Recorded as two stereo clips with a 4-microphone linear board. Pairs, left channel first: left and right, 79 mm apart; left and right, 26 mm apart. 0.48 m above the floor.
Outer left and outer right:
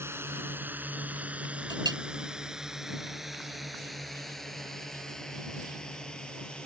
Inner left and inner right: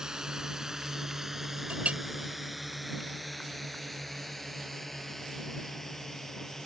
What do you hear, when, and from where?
0.0 s a drone: 30° right (ahead or behind); by 6.7 s 15° left (ahead or behind)
1.7 s a clink: 65° right (ahead or behind)